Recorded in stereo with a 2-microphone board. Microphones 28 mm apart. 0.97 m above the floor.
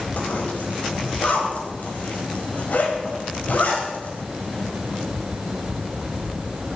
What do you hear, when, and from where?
0.2 s a zipper: 65° left (ahead or behind), 4.5 m